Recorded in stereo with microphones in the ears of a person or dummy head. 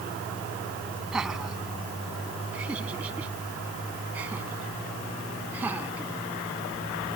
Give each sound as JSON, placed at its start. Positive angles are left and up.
{"t": 1.1, "sound": "laughter", "side_deg": -5}